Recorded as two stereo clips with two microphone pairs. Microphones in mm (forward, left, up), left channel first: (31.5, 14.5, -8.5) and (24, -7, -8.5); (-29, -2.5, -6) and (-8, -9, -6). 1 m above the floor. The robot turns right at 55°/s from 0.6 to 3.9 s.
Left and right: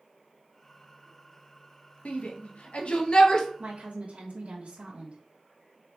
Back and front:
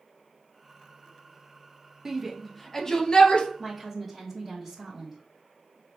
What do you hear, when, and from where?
2.0 s a shout: 55° left, 0.8 m; by 3.5 s 130° left, 0.8 m
3.6 s a woman speaking: 125° right, 1.1 m; by 5.2 s 110° right, 1.1 m